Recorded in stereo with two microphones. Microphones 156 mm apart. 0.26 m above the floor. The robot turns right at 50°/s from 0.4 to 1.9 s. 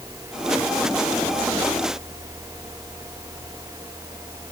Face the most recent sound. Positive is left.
No sound to turn to.